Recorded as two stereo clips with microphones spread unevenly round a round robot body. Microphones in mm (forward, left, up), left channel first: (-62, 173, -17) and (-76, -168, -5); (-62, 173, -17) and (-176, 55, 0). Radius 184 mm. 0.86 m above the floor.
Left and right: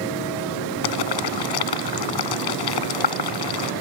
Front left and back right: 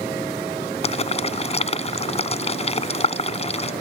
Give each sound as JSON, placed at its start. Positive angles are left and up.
{"t": 0.8, "sound": "boiling", "azimuth_deg": 100}